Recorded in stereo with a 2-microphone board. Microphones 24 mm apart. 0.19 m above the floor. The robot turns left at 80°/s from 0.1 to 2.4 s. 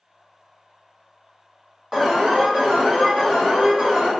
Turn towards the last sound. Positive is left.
turn(degrees=-65)